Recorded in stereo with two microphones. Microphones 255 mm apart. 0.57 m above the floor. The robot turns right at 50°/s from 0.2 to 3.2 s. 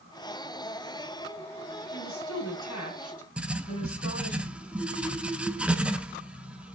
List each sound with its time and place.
1.9 s a woman speaking: 55° left, 5 m; by 4.4 s 120° left, 5 m
3.4 s writing: 5° right (ahead or behind), 0.6 m